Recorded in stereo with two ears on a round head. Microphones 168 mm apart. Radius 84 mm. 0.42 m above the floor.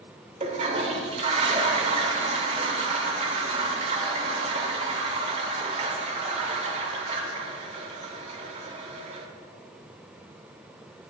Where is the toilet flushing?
35° right (ahead or behind), 0.9 m.